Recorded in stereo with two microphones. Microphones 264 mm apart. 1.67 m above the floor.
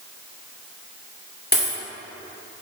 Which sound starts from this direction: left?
A dropped coin, at 1.5 s.